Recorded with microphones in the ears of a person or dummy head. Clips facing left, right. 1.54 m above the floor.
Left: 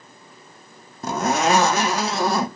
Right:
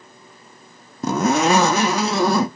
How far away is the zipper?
About 0.6 m.